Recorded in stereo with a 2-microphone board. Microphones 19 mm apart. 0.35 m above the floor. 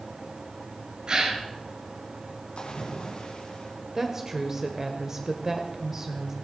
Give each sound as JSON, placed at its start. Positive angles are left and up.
{"t": 1.1, "sound": "a gasp", "side_deg": -40, "distance_m": 2.0}
{"t": 2.6, "sound": "a splash", "side_deg": 70, "distance_m": 4.0}
{"t": 4.0, "sound": "a woman speaking", "side_deg": -25, "distance_m": 1.0}